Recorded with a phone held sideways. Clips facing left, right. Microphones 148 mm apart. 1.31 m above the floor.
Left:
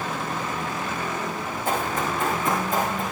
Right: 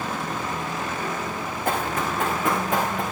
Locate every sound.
1.6 s running footsteps: 70° right (ahead or behind), 5 m; by 3.0 s 75° right (ahead or behind), 6 m